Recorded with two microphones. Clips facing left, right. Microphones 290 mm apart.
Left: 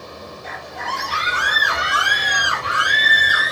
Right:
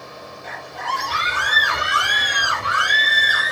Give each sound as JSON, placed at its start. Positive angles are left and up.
{"t": 0.4, "sound": "a scream", "side_deg": -60, "distance_m": 6.0}